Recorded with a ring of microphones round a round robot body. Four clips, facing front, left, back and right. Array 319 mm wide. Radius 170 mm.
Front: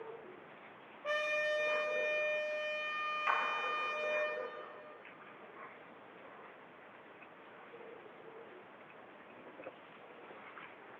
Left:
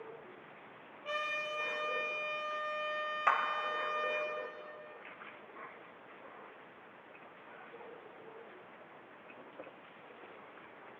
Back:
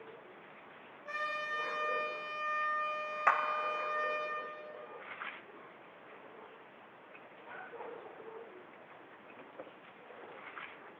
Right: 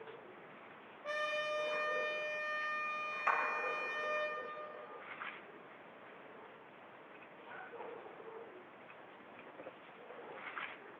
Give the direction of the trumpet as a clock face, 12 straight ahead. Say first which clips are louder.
Right 1 dB, front 4 dB; 12 o'clock.